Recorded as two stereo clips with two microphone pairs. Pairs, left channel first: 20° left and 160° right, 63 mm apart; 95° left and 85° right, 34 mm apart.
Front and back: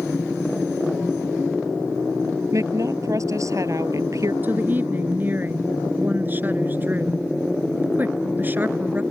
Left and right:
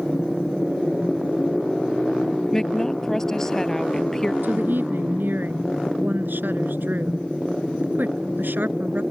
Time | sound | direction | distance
2.5 | a woman speaking | 165° left | ?
4.4 | a woman speaking | 100° right | ?